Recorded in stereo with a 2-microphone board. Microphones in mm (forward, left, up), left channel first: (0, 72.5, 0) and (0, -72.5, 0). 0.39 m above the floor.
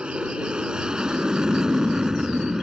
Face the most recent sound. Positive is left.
turn(degrees=-5)  # may be behind; listen again after turning